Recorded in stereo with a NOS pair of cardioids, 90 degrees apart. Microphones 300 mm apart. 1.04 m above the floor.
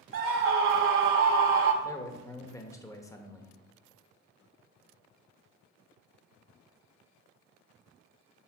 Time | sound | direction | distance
0.1 | a scream | 45° right | 0.7 m
1.8 | a man speaking | 10° left | 1.0 m